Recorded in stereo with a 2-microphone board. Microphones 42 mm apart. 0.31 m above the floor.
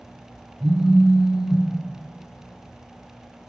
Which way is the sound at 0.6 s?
10° right (ahead or behind).